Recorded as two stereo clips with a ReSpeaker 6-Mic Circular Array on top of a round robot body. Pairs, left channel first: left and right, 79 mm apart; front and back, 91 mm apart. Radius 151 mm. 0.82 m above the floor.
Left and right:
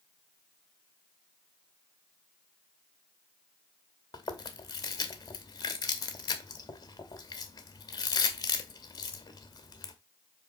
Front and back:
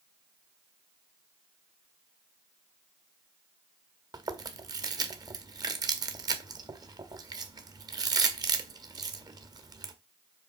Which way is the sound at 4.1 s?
130° left.